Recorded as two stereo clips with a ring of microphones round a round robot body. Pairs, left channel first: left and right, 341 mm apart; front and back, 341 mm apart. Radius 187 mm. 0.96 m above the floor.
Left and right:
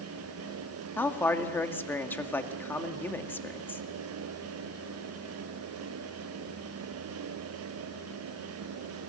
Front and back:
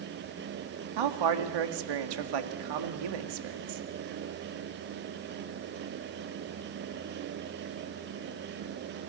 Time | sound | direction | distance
1.0 | a man speaking | 175° left | 2.0 m